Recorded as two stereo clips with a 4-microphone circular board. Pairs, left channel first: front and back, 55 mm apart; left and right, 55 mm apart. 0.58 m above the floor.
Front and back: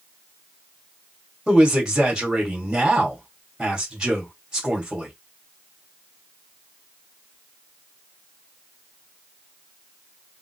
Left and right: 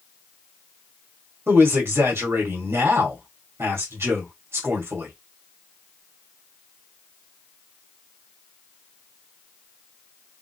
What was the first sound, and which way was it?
A man speaking, 105° right.